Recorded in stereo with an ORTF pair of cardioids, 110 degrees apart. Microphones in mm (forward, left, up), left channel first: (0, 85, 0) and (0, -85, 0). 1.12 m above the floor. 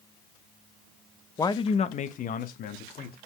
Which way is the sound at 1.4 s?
15° left.